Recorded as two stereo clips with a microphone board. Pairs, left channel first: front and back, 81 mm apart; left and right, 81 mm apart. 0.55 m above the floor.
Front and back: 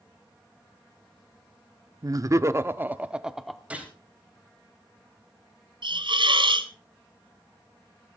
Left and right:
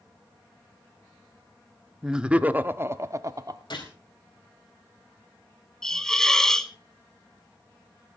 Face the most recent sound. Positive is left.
turn(degrees=175)